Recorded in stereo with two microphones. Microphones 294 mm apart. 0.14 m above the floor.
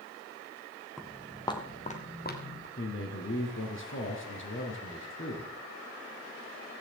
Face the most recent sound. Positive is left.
turn(degrees=45)  # may be behind; listen again after turning